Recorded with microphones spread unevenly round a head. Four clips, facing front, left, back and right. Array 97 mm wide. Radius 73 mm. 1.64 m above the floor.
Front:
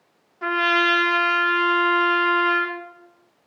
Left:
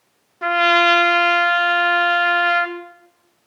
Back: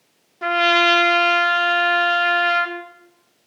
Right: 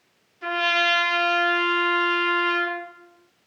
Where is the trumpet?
120° left, 2 m.